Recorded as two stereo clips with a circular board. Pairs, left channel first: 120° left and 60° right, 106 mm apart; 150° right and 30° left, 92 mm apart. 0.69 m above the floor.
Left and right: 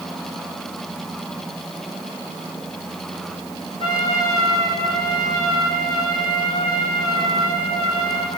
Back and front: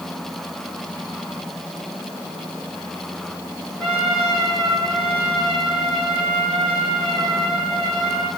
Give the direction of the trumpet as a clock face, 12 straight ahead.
8 o'clock.